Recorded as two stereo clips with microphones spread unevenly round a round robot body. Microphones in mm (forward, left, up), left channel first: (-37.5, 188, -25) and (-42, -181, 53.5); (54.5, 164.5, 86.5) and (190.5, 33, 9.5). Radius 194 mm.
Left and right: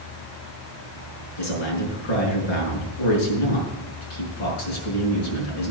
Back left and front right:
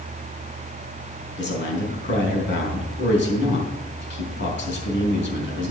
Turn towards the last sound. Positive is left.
turn(degrees=95)